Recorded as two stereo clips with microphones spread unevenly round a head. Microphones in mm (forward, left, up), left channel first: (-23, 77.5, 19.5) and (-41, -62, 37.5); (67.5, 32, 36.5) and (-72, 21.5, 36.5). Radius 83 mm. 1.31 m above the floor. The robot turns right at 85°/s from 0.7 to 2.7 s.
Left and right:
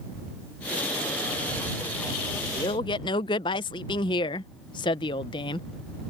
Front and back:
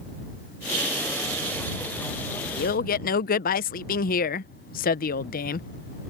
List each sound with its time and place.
2.5 s a man speaking: 10° left; by 5.7 s 20° left